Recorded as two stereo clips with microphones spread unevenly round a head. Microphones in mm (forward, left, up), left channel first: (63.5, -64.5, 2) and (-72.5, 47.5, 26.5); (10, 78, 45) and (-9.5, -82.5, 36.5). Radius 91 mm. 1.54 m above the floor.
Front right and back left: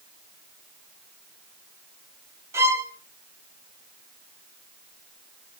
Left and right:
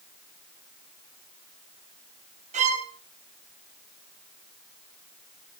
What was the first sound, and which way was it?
A violin, 145° right.